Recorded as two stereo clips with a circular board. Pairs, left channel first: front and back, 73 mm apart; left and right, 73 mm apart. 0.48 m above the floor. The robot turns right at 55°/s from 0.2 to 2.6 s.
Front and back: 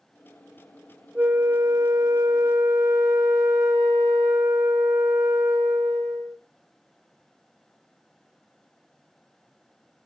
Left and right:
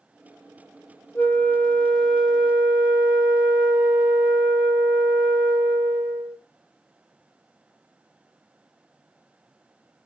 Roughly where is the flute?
Behind left.